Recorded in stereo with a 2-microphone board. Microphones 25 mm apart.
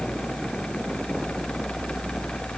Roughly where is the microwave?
No microwave in this recording.